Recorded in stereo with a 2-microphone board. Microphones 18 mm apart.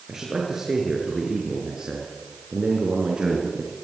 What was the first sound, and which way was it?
A man speaking, 20° right (ahead or behind).